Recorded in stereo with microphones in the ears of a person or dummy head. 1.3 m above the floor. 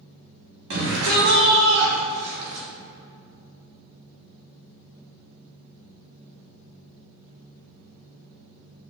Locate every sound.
0.7 s a shout: 65° right (ahead or behind), 1.3 m; by 2.7 s 50° right (ahead or behind), 2.5 m